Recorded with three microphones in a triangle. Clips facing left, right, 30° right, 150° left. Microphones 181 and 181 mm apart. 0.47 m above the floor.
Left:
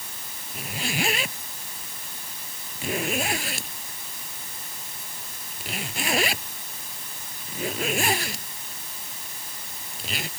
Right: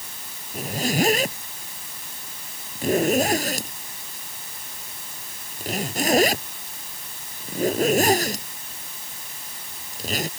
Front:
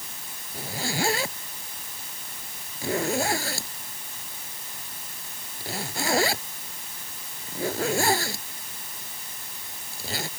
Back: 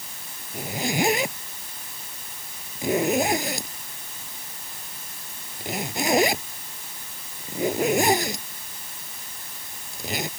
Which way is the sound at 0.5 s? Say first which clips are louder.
Right 7 dB, back 4 dB; 135° right.